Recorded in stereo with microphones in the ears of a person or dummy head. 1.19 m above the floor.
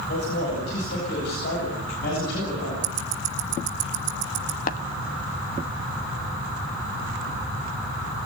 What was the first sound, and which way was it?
A man speaking, 75° left (ahead or behind).